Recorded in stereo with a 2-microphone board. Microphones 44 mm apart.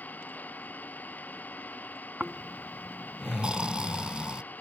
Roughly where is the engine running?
Left.